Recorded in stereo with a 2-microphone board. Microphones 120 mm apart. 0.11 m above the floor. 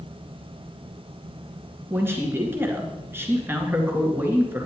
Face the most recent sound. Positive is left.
turn(degrees=-20)  # may be behind; listen again after turning